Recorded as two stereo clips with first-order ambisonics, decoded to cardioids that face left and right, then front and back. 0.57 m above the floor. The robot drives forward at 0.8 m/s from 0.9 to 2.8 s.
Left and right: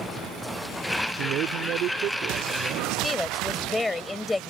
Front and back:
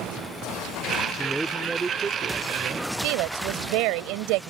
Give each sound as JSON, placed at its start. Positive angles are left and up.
{"t": 1.2, "sound": "a man speaking", "azimuth_deg": -85}
{"t": 3.0, "sound": "a woman speaking", "azimuth_deg": 170}